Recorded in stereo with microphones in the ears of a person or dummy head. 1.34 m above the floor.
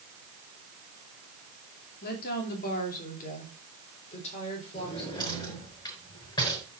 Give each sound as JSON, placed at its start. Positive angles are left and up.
{"t": 2.0, "sound": "a woman speaking", "side_deg": 55, "distance_m": 2.5}
{"t": 4.7, "sound": "a drawer", "side_deg": 20, "distance_m": 5.0}